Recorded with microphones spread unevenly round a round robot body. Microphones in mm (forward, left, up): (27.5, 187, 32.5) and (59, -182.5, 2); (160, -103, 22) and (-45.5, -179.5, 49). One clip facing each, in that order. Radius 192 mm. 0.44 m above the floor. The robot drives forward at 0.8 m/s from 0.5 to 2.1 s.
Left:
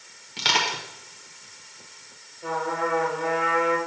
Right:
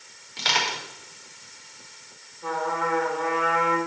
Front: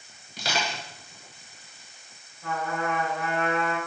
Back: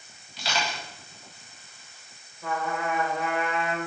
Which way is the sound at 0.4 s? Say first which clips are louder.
Left 2 dB, front 1 dB; 50° left.